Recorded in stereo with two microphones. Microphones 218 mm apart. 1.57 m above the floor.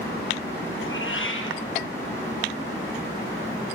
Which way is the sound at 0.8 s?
65° left (ahead or behind).